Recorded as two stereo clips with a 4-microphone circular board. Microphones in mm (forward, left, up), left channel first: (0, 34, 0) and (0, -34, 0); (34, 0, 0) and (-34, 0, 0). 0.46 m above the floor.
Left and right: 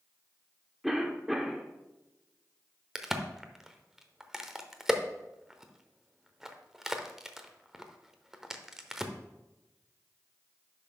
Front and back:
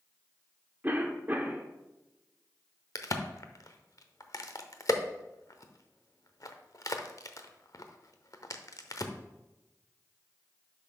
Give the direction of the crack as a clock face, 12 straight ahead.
12 o'clock.